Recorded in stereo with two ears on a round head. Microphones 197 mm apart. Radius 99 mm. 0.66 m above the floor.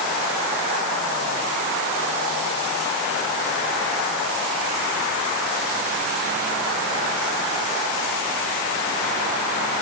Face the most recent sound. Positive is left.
No sound to turn to.